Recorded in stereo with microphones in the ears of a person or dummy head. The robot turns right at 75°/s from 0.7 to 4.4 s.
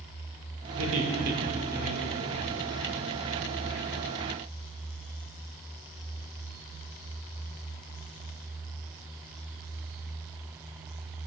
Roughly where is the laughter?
Right.